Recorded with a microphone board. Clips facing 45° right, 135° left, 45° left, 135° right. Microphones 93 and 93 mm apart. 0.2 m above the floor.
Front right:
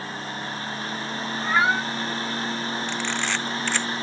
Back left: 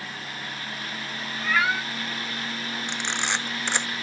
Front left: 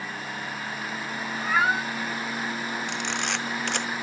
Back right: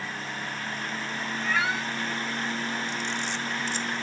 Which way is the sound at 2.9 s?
65° left.